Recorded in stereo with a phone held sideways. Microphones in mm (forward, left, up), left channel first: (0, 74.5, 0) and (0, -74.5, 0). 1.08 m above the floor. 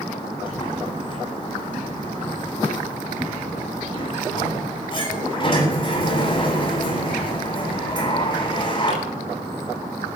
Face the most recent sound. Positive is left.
turn(degrees=35)  # may be behind; listen again after turning